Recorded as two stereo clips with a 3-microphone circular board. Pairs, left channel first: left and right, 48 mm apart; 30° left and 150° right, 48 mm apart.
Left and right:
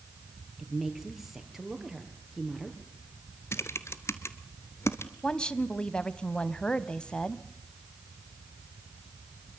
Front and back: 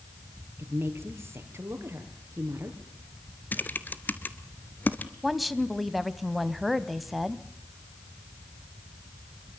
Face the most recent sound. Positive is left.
turn(degrees=120)